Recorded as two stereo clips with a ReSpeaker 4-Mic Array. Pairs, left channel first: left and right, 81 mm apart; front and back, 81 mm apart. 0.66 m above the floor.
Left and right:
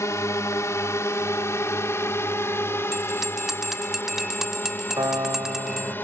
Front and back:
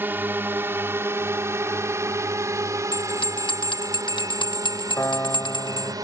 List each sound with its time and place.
0.0 s a drone: 125° left; by 6.0 s 155° left
2.9 s a bell: 5° right
5.0 s a piano: 55° right